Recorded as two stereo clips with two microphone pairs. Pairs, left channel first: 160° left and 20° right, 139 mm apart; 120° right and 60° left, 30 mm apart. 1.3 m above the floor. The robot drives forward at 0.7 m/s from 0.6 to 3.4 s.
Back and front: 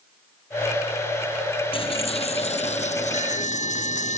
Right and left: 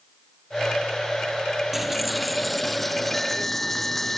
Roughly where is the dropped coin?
Behind left.